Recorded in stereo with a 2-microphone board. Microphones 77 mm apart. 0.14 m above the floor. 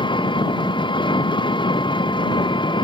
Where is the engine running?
80° left.